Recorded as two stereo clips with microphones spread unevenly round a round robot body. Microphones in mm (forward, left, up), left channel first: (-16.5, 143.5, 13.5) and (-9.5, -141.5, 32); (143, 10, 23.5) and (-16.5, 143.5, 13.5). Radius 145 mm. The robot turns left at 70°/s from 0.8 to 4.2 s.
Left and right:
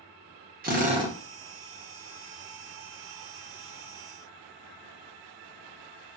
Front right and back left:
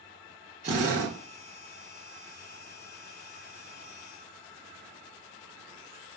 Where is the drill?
150° right, 0.6 m; by 1.2 s 175° right, 0.6 m.